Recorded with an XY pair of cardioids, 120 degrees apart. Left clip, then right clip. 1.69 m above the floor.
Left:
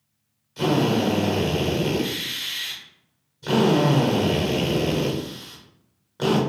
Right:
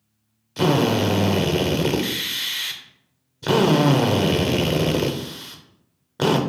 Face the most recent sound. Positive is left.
turn(degrees=-50)